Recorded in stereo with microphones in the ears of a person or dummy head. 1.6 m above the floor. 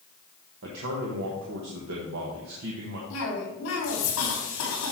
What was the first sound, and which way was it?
A man speaking, 70° right (ahead or behind).